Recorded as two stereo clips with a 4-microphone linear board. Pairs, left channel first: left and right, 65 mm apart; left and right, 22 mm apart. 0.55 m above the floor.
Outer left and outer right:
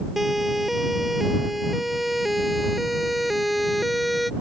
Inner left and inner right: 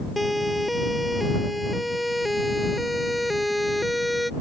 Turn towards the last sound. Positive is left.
turn(degrees=0)  # may be behind; listen again after turning